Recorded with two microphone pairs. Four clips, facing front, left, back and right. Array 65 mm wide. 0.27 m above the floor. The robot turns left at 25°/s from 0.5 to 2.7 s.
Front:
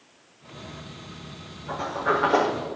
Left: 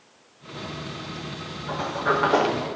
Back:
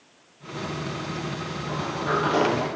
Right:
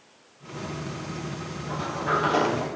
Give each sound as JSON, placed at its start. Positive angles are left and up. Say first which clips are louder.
{"t": 1.7, "sound": "a sliding door", "louder": "left 3 dB, front 2 dB", "azimuth_deg": 75, "distance_m": 5.0}